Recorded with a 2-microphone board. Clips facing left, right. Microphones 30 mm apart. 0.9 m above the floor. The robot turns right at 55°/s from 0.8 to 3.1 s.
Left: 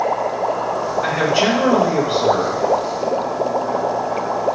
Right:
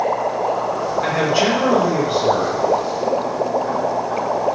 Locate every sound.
1.0 s a man speaking: 25° right, 1.3 m; by 2.7 s 65° left, 1.3 m